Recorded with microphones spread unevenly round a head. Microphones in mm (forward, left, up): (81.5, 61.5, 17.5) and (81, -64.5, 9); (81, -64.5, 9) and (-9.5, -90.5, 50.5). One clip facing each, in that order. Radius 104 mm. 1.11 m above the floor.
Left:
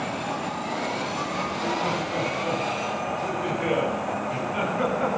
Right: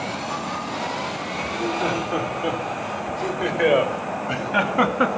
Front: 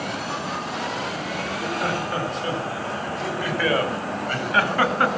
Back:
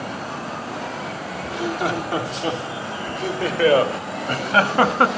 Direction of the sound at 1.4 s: 150° right.